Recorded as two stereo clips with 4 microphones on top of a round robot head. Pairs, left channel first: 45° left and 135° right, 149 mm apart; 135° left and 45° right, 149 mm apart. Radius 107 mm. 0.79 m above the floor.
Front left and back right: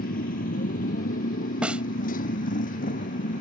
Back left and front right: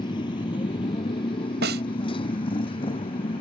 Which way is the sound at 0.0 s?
75° left.